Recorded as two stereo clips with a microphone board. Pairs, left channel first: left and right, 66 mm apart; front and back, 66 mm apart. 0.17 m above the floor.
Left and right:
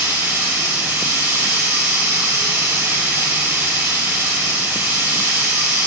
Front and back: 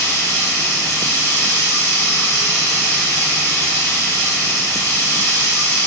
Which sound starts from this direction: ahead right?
Running water, at 0.0 s.